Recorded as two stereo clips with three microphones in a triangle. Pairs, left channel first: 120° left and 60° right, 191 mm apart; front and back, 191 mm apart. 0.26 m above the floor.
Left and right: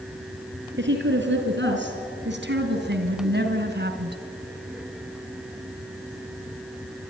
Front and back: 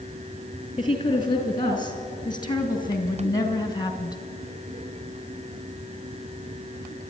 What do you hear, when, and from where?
0.8 s a woman speaking: 65° right, 4.5 m